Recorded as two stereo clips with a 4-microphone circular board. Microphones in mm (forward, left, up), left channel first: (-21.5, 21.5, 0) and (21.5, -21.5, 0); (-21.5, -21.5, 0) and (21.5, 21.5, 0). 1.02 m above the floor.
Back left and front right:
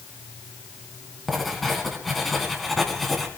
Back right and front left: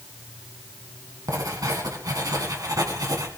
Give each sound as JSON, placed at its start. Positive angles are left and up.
{"t": 1.3, "sound": "writing", "azimuth_deg": 45, "distance_m": 2.5}